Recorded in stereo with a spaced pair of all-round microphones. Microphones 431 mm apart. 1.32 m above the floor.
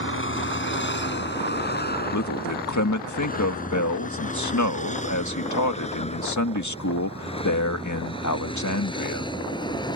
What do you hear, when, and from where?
0.0 s a vehicle: 30° left (ahead or behind); by 10.0 s 10° left (ahead or behind)
2.1 s a man speaking: 40° left (ahead or behind)